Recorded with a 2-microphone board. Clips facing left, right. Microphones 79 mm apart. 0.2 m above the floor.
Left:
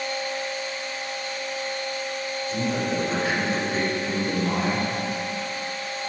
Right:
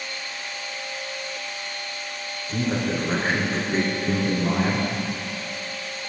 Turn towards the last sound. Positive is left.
turn(degrees=-40)  # may be behind; listen again after turning